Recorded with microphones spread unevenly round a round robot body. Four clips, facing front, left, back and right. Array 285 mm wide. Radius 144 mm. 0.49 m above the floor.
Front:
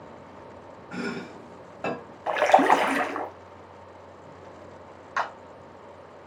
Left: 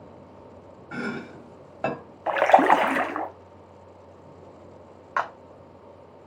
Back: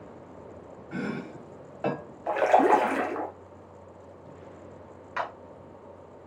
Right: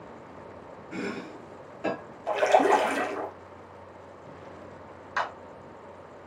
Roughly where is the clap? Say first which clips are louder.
Left 3 dB, front 3 dB; behind left.